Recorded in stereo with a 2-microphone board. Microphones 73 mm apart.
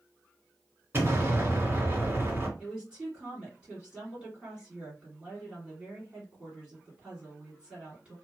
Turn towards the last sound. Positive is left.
turn(degrees=-15)  # may be behind; listen again after turning